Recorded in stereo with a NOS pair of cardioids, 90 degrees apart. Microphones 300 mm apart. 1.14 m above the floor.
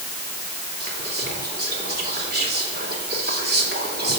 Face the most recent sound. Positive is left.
turn(degrees=-30)